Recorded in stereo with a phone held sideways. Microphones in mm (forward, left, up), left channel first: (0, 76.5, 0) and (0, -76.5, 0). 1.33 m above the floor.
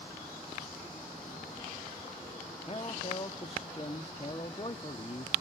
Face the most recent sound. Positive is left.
turn(degrees=30)  # may be behind; listen again after turning